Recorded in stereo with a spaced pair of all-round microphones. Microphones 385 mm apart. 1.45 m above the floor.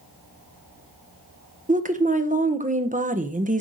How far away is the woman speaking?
About 0.8 m.